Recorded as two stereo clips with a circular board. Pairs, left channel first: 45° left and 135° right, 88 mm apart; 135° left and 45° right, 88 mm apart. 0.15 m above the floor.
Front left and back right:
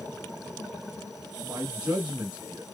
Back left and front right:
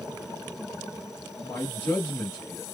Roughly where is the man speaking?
Behind.